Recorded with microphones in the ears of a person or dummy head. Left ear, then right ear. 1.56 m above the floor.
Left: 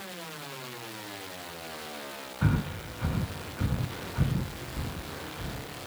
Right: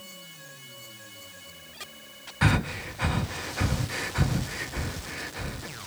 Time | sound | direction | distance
2.4 | breathing | 35° right (ahead or behind) | 0.5 m